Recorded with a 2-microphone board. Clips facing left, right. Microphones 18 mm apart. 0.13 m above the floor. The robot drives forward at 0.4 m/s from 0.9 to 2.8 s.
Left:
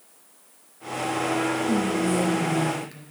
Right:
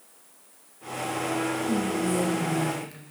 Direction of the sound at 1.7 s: 15° left (ahead or behind).